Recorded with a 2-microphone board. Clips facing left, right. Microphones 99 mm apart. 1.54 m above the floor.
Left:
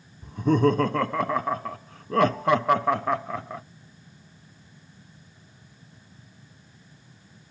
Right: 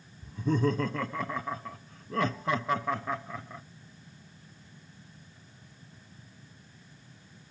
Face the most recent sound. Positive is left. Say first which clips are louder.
# left 7 dB
turn(degrees=70)  # may be behind; listen again after turning